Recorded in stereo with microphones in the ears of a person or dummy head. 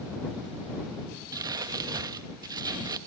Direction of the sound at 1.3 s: 15° right (ahead or behind).